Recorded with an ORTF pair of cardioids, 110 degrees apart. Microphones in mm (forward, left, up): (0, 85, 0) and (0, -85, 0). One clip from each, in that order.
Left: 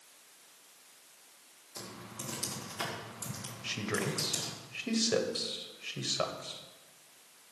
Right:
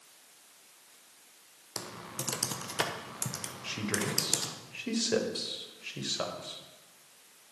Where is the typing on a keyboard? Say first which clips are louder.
Right 5 dB; 65° right, 1.2 m.